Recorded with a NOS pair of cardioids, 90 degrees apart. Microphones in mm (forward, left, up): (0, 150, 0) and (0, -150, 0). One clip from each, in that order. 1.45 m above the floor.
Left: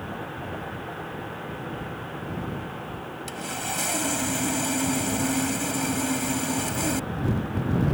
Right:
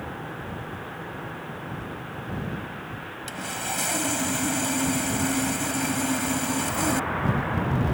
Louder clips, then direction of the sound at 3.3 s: Right 1 dB; 5° right.